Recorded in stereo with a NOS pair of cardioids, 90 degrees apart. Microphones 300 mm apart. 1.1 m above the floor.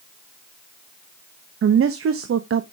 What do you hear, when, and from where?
1.6 s a woman speaking: 45° right, 1.0 m